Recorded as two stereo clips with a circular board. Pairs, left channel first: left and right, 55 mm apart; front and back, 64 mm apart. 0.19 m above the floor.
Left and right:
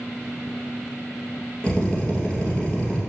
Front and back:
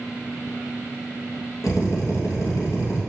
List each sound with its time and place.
1.6 s a drill: 20° left, 2.5 m